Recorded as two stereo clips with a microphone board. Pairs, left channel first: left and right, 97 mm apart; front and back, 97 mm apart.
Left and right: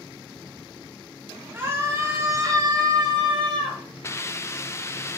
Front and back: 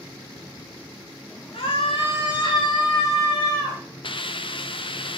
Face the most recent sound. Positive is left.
turn(degrees=30)